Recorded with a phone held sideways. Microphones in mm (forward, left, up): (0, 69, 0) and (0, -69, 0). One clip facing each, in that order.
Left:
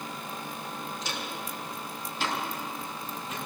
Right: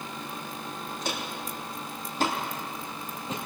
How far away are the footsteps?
About 3.5 m.